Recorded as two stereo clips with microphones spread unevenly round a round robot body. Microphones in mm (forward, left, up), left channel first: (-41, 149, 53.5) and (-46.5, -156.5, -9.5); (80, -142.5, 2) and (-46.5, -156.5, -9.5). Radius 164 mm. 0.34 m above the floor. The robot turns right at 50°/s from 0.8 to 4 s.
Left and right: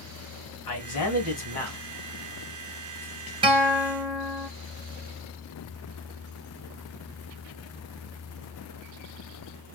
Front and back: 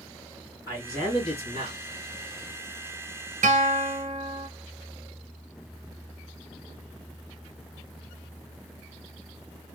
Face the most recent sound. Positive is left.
turn(degrees=-135)